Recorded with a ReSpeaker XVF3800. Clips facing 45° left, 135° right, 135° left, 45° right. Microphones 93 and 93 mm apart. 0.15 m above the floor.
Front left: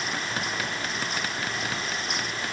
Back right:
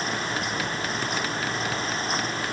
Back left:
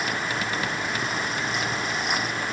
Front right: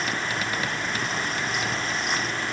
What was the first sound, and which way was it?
Only background noise.